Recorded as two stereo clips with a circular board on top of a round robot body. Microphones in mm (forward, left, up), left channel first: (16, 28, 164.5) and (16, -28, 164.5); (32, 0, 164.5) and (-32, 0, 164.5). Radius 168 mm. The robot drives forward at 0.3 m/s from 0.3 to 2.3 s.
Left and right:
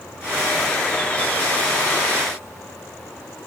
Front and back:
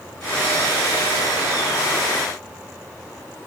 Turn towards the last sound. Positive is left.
No sound to turn to.